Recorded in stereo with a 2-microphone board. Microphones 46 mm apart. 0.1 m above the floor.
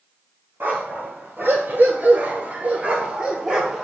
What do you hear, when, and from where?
0.6 s a dog barking: 45° right (ahead or behind), 1.2 m; by 3.9 s 10° right (ahead or behind), 1.1 m